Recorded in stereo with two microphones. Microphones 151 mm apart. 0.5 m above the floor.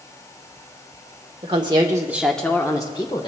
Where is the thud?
No thud in this recording.